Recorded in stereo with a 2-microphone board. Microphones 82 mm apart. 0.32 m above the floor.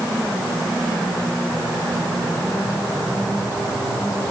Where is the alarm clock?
I don't hear an alarm clock.